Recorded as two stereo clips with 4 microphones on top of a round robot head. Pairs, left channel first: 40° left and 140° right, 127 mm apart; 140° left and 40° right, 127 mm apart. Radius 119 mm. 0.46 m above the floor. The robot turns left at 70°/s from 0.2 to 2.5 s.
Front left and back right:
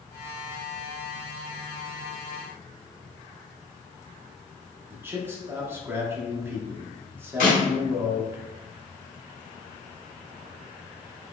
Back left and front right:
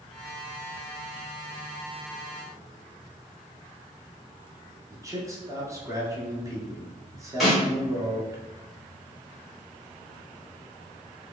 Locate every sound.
4.9 s a man speaking: 80° right, 1.1 m
7.4 s a snare drum: 45° left, 1.7 m